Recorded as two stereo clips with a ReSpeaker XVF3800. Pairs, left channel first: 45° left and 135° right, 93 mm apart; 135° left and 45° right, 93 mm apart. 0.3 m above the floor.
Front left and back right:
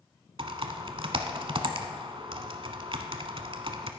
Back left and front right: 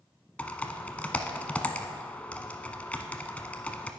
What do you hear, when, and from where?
0.4 s typing on a keyboard: 150° right, 0.8 m